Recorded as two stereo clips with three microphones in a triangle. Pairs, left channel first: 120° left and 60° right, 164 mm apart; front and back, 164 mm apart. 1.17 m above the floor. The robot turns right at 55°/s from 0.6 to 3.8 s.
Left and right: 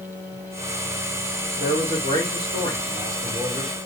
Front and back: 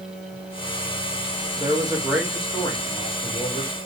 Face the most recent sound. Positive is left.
turn(degrees=-5)